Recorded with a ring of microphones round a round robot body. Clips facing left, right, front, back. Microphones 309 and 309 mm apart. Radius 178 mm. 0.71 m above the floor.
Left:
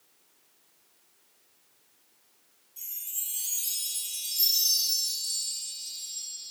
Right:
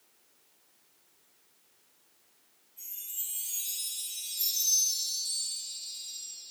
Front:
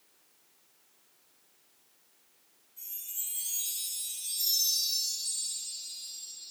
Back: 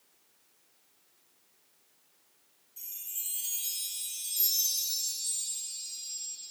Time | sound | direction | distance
2.8 | a chime | 130° left | 0.6 m